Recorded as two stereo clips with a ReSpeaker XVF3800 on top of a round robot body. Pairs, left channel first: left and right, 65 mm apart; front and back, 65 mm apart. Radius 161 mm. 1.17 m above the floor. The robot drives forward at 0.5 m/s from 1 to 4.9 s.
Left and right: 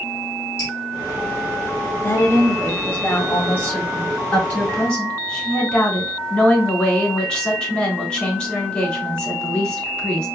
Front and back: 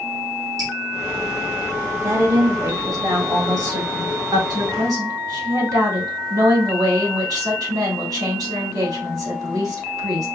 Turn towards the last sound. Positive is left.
turn(degrees=165)